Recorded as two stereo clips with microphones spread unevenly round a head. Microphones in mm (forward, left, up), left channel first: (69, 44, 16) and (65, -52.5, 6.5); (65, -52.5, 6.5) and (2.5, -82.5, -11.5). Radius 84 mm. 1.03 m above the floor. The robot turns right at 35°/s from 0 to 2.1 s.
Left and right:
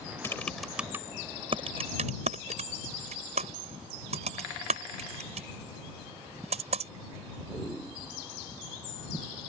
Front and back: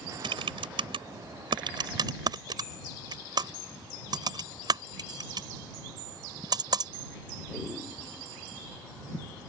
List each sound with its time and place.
0.2 s typing on a keyboard: 165° left; by 6.9 s 130° right